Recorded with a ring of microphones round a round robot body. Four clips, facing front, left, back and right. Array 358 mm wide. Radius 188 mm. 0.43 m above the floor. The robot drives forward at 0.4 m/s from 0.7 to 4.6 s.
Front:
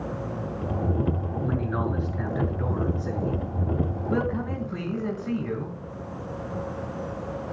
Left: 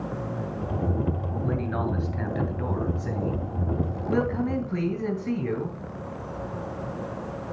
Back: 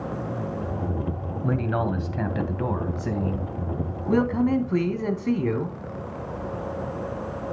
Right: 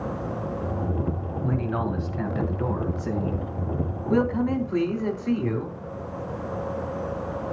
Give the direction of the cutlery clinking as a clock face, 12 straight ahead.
No cutlery clinking in this recording.